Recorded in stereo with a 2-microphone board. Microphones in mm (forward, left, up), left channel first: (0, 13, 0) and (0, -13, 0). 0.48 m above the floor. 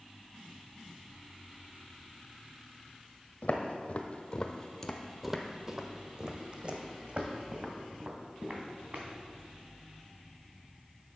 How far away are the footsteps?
About 1.2 m.